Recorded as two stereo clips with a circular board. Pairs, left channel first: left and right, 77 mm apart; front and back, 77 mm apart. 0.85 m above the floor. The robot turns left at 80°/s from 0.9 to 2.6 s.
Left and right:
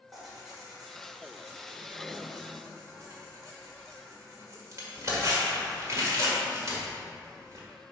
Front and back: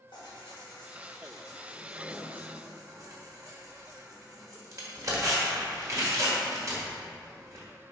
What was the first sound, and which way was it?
Tearing paper, straight ahead.